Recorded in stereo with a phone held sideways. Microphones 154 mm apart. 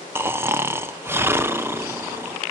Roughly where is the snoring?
Centre.